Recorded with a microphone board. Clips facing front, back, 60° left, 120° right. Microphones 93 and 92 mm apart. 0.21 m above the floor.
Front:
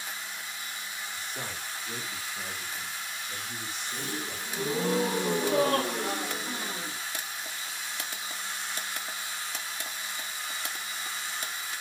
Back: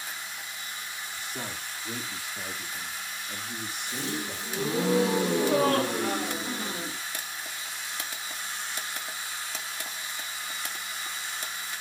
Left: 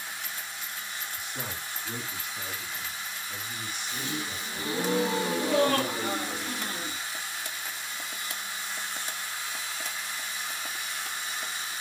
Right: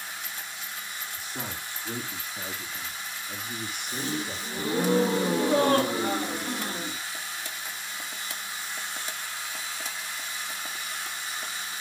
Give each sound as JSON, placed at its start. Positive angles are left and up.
{"t": 1.2, "sound": "a man speaking", "azimuth_deg": 180, "distance_m": 7.0}
{"t": 3.9, "sound": "a gasp", "azimuth_deg": -175, "distance_m": 2.0}